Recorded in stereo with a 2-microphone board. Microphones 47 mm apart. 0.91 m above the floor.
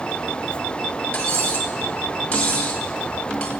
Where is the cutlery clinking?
25° left (ahead or behind), 2.0 m.